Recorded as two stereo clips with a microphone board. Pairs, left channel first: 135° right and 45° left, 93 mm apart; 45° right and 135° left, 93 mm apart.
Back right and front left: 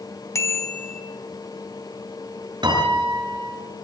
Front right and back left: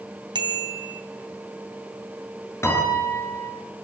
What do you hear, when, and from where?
0.3 s a bicycle bell: 170° left, 3.5 m
2.6 s a piano: 15° left, 6 m